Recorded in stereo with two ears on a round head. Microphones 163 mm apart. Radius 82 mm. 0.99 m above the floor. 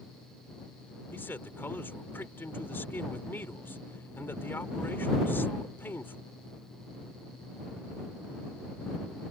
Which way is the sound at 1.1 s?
10° left (ahead or behind).